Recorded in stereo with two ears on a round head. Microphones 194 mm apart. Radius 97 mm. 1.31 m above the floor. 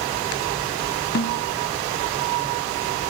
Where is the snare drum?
45° left (ahead or behind), 0.8 m.